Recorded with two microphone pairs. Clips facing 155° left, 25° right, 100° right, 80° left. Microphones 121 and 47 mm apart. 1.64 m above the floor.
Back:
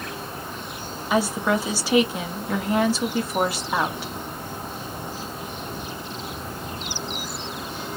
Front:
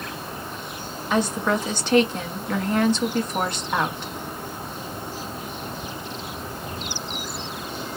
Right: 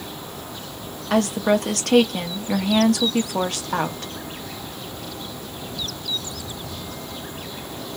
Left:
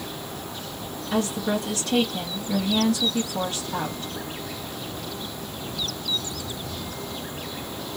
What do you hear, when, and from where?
1.1 s a woman speaking: 120° right, 1.0 m